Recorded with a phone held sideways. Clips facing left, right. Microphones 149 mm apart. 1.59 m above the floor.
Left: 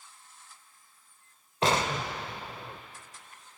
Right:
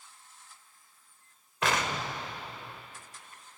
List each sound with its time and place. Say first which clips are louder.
1.6 s an explosion: left 3 dB; 30° left (ahead or behind), 1.5 m